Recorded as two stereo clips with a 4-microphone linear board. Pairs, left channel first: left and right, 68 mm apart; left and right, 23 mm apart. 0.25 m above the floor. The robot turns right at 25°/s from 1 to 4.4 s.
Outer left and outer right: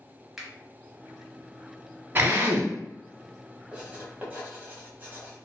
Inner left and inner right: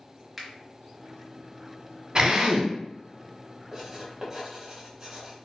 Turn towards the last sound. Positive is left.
turn(degrees=-25)  # may be behind; listen again after turning